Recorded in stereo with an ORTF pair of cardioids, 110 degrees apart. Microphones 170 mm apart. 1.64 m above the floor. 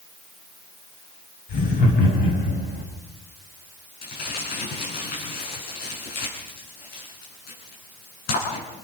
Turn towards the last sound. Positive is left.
turn(degrees=65)